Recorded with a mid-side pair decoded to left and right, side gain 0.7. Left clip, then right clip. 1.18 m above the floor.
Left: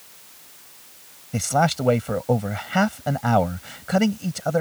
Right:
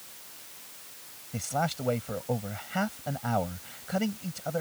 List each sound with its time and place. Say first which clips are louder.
1.3 s a man speaking: left 10 dB; 40° left